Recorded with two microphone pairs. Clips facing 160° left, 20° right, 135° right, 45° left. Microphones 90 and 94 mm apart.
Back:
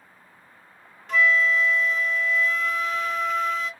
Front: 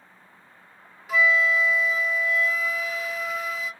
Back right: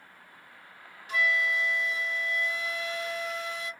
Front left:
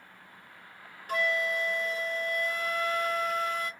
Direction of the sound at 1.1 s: 60° left.